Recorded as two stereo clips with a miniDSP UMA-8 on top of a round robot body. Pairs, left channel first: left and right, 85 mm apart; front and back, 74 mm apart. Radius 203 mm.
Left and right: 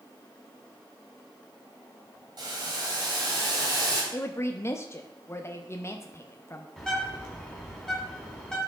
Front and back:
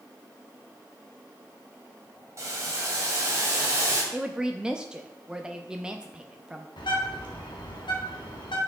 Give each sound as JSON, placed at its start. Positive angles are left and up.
{"t": 2.4, "sound": "boiling", "azimuth_deg": -130, "distance_m": 2.5}
{"t": 4.1, "sound": "a woman speaking", "azimuth_deg": 110, "distance_m": 0.9}
{"t": 6.8, "sound": "a bird", "azimuth_deg": 5, "distance_m": 2.0}